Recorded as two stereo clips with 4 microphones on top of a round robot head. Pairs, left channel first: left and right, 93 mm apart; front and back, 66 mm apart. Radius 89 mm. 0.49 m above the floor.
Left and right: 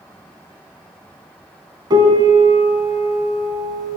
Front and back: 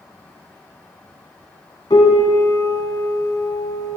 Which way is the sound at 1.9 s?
45° right.